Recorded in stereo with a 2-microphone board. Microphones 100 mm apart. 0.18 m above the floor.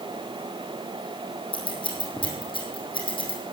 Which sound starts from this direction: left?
Scissors, at 1.5 s.